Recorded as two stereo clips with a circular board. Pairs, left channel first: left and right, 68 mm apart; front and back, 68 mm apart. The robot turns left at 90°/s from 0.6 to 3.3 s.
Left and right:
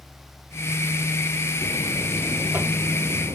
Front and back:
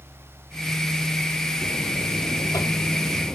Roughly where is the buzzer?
Ahead left.